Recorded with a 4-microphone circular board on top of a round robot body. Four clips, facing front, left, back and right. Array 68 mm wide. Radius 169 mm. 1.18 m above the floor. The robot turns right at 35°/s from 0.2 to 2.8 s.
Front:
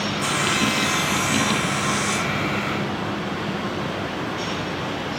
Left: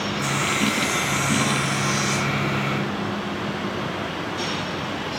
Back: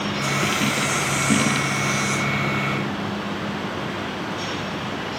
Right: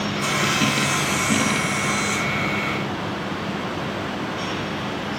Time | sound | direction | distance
0.2 | sawing | 35° right | 2.5 m